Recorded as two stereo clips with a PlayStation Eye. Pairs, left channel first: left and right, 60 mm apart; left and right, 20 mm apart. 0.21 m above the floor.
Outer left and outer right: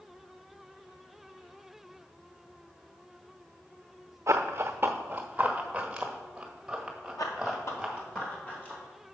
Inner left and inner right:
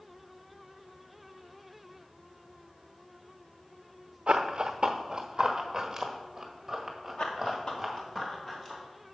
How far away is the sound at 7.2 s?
About 1.3 m.